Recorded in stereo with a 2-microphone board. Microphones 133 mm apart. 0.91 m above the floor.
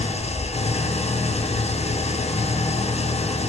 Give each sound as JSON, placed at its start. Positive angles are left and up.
{"t": 0.0, "sound": "an engine running", "side_deg": 55, "distance_m": 1.0}